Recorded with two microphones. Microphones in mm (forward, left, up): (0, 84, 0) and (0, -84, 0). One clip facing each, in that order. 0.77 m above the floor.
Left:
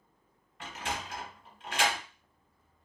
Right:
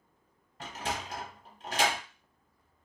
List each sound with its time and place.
0.6 s a sliding door: 40° right (ahead or behind), 0.7 m